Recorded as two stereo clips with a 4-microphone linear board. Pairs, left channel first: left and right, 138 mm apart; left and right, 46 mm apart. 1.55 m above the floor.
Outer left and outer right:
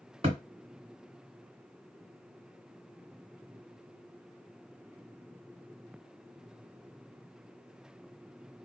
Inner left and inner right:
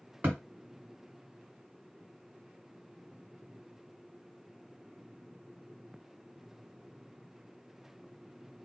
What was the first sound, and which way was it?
A thud, 40° right (ahead or behind).